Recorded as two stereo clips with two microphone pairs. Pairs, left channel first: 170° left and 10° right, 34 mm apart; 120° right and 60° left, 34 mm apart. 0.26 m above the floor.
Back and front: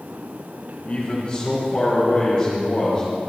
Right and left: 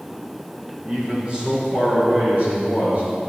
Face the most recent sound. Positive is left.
turn(degrees=105)